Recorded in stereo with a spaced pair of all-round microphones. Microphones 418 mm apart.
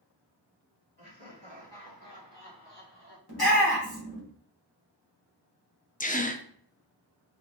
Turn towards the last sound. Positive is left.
turn(degrees=20)  # may be behind; listen again after turning